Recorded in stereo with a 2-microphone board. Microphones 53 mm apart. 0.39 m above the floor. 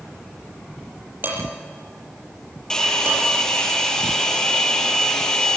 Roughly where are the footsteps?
No footsteps in this recording.